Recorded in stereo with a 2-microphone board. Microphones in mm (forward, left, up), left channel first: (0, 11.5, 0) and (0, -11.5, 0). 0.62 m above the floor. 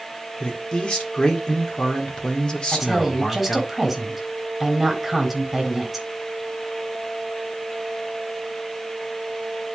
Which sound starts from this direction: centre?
A woman speaking, at 2.7 s.